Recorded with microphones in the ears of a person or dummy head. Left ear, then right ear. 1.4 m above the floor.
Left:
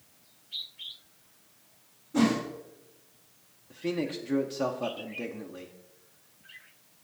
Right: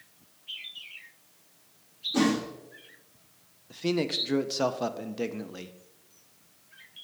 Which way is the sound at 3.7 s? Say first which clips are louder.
Right 4 dB; 25° right (ahead or behind).